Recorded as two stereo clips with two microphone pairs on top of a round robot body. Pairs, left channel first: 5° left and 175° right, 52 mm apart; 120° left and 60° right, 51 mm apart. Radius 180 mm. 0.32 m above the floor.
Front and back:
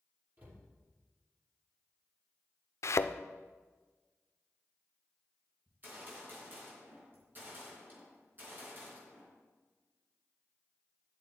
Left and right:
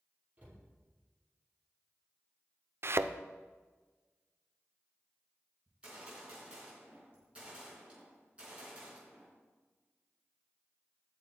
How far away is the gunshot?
About 4 m.